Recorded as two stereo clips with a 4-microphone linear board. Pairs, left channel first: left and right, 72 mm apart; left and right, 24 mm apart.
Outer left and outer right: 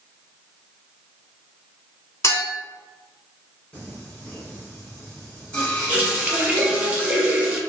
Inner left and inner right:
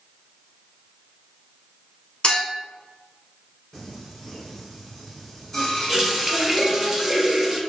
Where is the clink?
45° left (ahead or behind), 0.9 m.